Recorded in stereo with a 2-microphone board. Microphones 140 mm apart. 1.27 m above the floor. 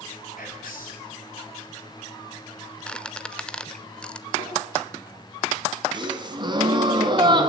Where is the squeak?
5° left (ahead or behind), 1.0 m.